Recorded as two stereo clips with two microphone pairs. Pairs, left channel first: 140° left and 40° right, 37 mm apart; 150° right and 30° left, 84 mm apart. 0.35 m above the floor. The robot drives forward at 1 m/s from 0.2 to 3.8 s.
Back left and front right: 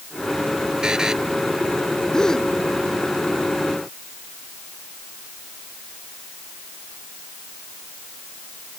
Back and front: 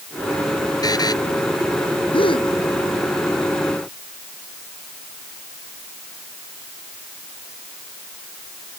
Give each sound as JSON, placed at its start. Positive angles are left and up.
{"t": 0.8, "sound": "a buzzer", "azimuth_deg": -110}
{"t": 2.1, "sound": "a gasp", "azimuth_deg": -145}